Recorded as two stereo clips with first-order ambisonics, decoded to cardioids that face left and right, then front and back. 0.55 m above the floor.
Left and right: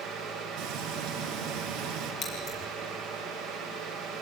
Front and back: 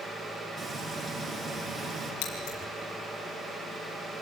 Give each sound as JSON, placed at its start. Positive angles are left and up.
{"t": 0.6, "sound": "frying", "azimuth_deg": -115, "distance_m": 7.0}
{"t": 2.2, "sound": "scissors", "azimuth_deg": 30, "distance_m": 7.0}